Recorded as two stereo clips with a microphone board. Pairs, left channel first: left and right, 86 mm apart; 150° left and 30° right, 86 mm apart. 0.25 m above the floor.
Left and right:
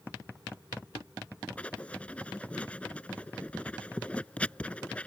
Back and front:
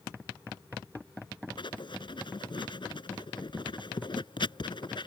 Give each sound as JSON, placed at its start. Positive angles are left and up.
{"t": 1.6, "sound": "writing", "azimuth_deg": 165}